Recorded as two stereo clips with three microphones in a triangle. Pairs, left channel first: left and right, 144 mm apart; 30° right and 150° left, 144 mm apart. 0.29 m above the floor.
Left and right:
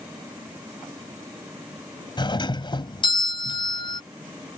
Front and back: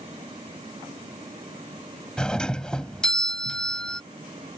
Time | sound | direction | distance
2.2 | a doorbell | 50° left | ?